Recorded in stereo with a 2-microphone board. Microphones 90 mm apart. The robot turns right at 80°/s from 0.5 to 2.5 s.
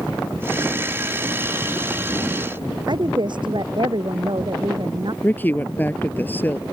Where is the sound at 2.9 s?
55° right (ahead or behind).